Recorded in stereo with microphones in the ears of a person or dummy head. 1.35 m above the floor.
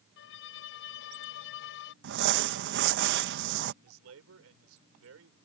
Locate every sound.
0.2 s a violin: 60° left (ahead or behind)
2.0 s crumpling: 55° right (ahead or behind)
3.8 s a man speaking: 85° right